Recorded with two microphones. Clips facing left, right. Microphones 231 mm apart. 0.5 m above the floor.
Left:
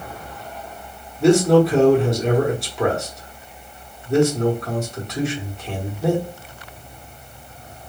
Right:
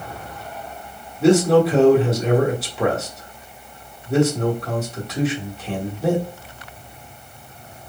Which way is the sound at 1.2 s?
Centre (ahead or behind).